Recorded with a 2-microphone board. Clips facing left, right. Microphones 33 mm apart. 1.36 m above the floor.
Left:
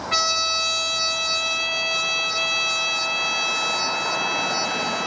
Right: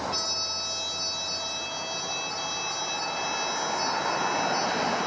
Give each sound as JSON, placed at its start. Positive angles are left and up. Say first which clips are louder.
{"t": 0.1, "sound": "a trumpet", "louder": "left 10 dB", "side_deg": 75, "distance_m": 0.7}